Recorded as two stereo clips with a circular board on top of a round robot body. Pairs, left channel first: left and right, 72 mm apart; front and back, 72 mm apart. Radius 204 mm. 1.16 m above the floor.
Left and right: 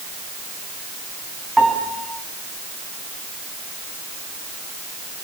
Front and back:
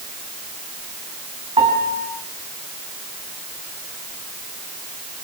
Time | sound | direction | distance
1.6 | a piano | straight behind | 4.5 m